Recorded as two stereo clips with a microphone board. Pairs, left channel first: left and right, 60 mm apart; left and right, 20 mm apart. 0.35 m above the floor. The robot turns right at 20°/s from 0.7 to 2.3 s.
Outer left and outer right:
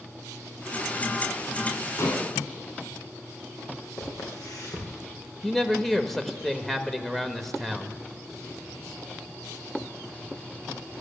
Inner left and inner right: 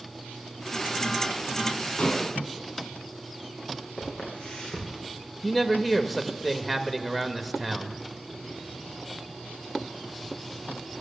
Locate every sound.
2.0 s dishes clattering: 60° left (ahead or behind), 2.5 m; by 2.3 s 65° left (ahead or behind), 2.5 m
4.0 s footsteps: 65° left (ahead or behind), 7 m
5.4 s a man speaking: 5° left (ahead or behind), 1.2 m